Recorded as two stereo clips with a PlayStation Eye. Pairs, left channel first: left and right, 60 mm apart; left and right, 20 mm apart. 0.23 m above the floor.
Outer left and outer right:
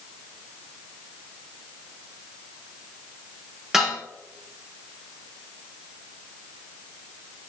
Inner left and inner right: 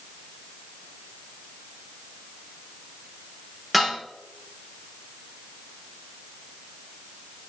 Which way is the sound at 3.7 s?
10° right (ahead or behind).